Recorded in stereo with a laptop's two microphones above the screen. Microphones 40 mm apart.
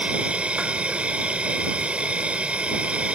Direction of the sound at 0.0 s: 35° right (ahead or behind).